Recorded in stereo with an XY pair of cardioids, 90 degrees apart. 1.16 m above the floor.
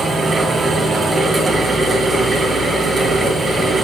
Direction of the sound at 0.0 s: 45° right.